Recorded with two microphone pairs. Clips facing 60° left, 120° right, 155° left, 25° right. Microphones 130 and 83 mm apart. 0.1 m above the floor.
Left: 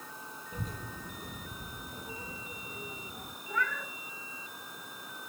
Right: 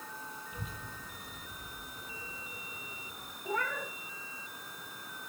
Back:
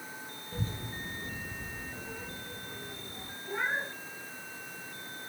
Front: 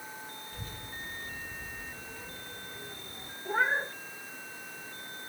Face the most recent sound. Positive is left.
turn(degrees=-65)